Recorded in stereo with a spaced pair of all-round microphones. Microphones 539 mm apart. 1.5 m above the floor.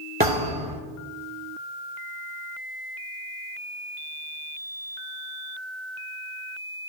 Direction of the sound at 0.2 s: 15° right (ahead or behind).